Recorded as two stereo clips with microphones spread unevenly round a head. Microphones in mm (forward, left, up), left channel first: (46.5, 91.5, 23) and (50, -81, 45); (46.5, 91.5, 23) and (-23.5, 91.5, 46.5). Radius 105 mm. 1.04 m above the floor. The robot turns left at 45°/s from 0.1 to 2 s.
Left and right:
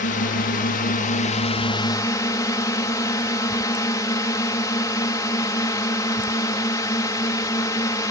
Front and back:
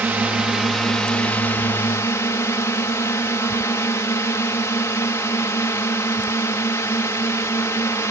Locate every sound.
0.0 s a drone: 110° left; by 8.1 s 25° left